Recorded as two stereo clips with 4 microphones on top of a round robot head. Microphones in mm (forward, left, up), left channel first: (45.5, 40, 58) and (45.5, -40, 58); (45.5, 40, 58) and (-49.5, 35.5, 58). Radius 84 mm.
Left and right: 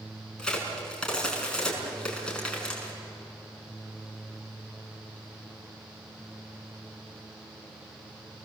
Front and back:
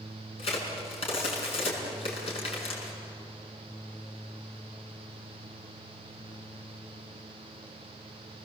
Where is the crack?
10° left, 6 m.